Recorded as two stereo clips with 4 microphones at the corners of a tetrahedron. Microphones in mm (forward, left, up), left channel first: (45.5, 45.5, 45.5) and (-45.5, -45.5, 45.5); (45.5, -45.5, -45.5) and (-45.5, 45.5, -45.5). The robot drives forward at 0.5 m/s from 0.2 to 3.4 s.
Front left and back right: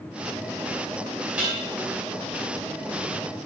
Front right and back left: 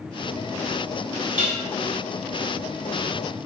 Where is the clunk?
No clunk in this recording.